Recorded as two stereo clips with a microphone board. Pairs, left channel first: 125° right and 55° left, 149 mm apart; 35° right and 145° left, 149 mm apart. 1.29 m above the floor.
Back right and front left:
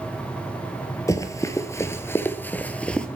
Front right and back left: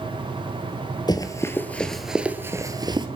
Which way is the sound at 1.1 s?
70° right.